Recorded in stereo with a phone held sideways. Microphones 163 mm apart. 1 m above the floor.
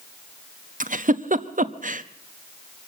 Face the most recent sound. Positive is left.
turn(degrees=-55)  # may be behind; listen again after turning